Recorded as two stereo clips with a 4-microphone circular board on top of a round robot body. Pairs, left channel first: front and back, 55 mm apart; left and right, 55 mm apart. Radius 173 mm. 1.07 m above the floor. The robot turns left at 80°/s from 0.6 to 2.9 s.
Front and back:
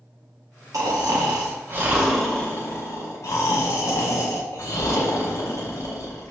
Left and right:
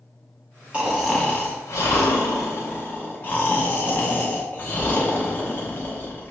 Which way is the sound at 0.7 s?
155° right.